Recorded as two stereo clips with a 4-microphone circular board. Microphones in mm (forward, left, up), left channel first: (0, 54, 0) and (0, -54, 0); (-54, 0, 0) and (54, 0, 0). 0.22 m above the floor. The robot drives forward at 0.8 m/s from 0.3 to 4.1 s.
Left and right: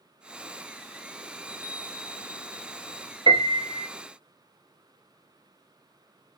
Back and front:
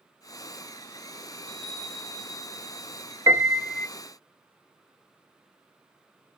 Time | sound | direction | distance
1.4 | a chime | 160° right | 1.7 m
3.3 | a piano | 55° right | 0.5 m